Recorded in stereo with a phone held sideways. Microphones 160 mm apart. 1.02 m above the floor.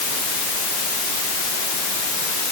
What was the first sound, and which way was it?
Only background noise.